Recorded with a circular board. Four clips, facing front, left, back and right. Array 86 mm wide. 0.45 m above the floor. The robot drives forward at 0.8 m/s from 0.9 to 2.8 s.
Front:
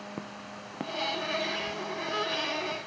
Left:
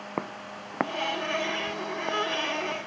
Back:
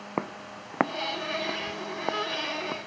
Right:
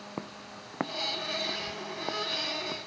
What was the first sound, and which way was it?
Footsteps, 145° left.